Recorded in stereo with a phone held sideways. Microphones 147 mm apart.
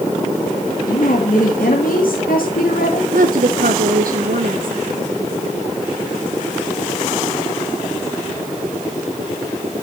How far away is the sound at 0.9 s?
About 1.9 m.